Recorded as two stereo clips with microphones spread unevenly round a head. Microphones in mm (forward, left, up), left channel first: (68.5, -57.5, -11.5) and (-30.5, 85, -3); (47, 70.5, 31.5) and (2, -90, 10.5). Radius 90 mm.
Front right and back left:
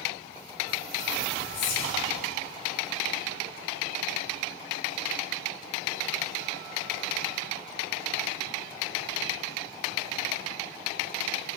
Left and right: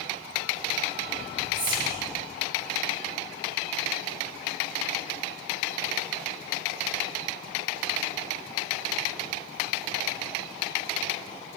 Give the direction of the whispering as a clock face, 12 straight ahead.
1 o'clock.